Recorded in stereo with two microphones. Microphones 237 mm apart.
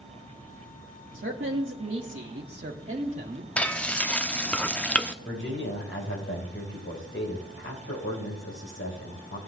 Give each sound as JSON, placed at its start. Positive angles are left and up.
{"t": 1.1, "sound": "a man speaking", "side_deg": -50, "distance_m": 1.4}
{"t": 3.6, "sound": "frying", "side_deg": 5, "distance_m": 0.6}
{"t": 5.2, "sound": "a man speaking", "side_deg": 50, "distance_m": 4.5}